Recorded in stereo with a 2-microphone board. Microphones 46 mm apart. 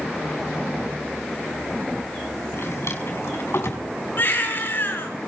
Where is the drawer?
70° left (ahead or behind), 5 m.